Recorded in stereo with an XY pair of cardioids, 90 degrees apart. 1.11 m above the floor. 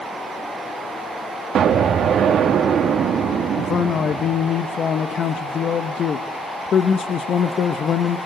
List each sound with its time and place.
1.6 s an explosion: 70° right, 1.9 m
3.6 s a man speaking: 60° left, 1.2 m